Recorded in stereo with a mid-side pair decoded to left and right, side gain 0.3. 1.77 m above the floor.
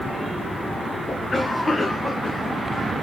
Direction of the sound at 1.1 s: 40° left.